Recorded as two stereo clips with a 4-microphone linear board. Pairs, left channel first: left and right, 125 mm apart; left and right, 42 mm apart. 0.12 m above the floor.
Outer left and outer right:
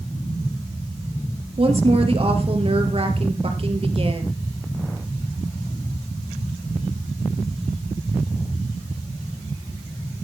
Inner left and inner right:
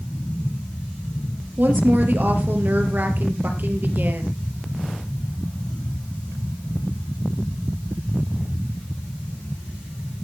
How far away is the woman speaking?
About 3 m.